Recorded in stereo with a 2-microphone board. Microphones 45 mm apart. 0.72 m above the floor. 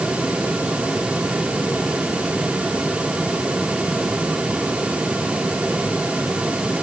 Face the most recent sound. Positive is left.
No sound to turn to.